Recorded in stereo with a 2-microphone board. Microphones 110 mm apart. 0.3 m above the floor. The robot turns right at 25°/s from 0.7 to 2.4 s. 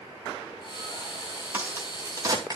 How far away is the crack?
About 2 m.